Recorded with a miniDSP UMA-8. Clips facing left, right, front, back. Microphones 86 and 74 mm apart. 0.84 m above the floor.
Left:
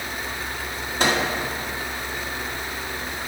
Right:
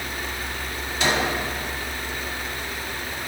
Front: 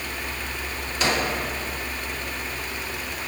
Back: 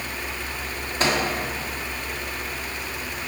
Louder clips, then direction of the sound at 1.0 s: Left 1 dB, back 1 dB; 130° left.